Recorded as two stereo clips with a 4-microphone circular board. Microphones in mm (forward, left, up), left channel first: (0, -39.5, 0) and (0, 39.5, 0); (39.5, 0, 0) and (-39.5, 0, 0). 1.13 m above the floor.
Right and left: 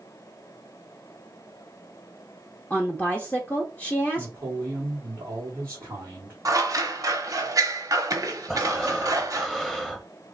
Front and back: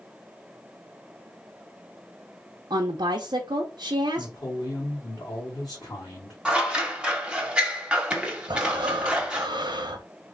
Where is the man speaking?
35° left, 1.5 m.